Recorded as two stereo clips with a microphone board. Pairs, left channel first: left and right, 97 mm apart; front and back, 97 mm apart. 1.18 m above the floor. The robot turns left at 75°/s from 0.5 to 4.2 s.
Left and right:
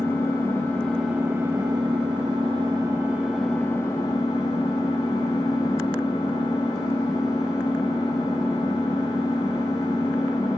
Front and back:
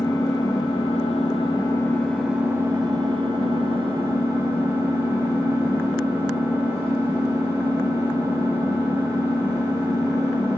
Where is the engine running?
35° left, 8.5 m; by 10.6 s 115° left, 8.5 m.